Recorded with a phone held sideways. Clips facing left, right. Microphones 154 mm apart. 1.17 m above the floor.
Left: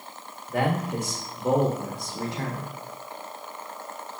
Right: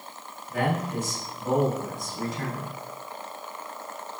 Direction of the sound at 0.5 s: 65° left (ahead or behind).